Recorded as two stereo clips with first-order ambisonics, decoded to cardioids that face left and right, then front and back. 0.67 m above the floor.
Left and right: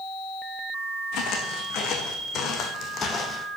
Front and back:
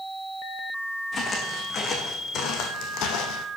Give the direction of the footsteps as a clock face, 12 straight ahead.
10 o'clock.